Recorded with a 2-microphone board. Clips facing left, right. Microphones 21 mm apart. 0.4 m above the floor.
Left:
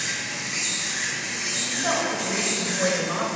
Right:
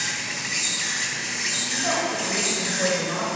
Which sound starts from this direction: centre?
A woman speaking, at 1.6 s.